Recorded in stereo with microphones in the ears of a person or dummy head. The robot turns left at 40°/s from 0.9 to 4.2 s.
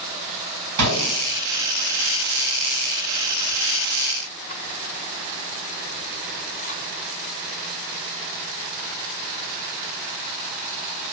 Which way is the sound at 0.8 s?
75° right (ahead or behind).